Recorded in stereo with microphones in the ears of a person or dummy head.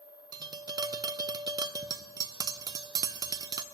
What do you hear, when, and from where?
0.3 s tapping: 25° right (ahead or behind), 0.5 m